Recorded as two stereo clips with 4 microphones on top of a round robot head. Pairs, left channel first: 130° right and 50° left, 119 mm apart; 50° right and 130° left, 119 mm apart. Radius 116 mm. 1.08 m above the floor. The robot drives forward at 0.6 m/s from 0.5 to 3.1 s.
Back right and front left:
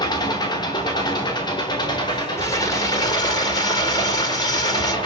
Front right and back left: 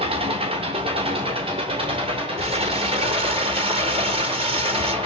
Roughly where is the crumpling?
Behind.